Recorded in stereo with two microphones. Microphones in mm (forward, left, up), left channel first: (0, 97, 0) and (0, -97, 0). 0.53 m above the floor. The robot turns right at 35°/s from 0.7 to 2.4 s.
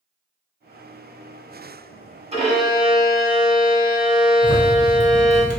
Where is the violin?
30° right (ahead or behind), 1.6 m.